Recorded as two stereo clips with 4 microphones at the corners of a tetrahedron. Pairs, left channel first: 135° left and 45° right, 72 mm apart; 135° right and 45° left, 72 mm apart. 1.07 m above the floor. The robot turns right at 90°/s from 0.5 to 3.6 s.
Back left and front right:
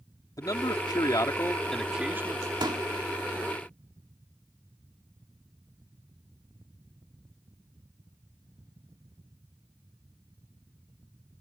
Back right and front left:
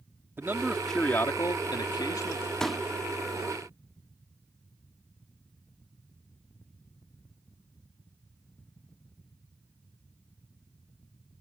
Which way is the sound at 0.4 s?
105° left.